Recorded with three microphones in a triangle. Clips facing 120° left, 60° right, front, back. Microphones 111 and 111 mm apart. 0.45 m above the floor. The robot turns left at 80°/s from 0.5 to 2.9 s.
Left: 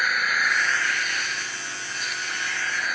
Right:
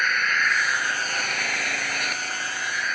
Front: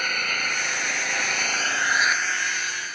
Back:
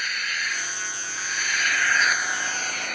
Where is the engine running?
40° left; by 3.0 s 155° right.